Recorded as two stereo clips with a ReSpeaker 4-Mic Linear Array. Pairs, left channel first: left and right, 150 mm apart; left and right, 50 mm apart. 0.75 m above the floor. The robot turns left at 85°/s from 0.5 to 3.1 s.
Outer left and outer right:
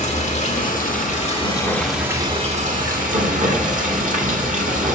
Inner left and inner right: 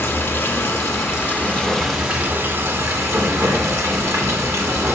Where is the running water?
120° left, 1.5 m; by 5.0 s 105° right, 1.5 m.